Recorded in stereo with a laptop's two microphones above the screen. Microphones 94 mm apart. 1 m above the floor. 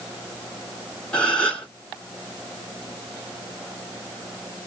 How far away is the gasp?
About 1.7 m.